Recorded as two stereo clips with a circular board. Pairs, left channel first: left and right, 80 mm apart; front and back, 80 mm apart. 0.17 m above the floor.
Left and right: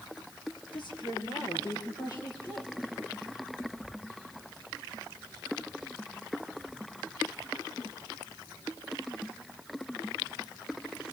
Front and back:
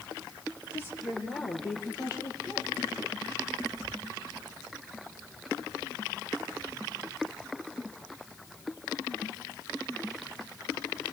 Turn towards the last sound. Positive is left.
turn(degrees=40)